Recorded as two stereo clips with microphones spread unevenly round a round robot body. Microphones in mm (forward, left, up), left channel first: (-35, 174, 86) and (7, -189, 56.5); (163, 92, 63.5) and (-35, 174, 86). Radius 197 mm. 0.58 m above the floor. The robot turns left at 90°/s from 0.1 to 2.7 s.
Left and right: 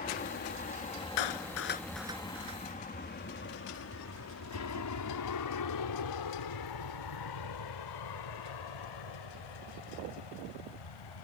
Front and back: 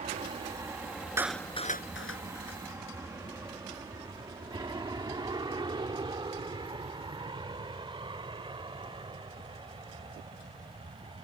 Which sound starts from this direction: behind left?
An aircraft, at 0.0 s.